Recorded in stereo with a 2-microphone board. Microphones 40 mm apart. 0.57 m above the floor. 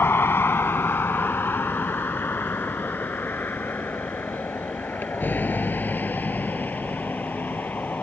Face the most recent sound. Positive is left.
turn(degrees=45)  # may be behind; listen again after turning